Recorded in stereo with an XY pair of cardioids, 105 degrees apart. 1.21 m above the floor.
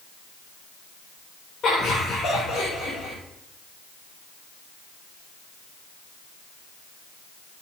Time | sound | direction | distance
1.6 | laughter | 60° left | 3.5 m